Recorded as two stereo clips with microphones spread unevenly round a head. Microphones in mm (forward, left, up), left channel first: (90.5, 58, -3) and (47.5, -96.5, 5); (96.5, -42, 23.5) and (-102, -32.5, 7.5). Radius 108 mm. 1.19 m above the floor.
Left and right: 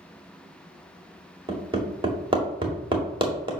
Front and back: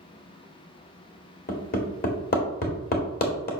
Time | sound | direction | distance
1.5 | hammering | 45° right | 2.0 m